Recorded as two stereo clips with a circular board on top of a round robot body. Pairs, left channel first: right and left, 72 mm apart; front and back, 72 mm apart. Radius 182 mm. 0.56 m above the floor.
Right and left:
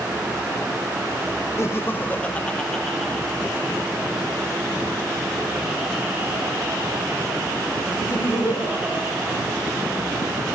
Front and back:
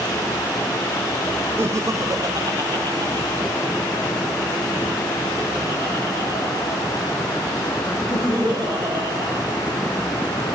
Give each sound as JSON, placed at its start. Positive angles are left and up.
{"t": 1.6, "sound": "laughter", "azimuth_deg": -135, "distance_m": 0.8}